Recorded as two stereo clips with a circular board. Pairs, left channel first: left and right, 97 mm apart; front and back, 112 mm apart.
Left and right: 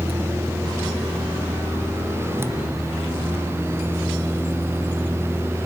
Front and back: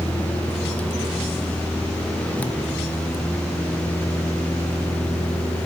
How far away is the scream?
I don't hear a scream.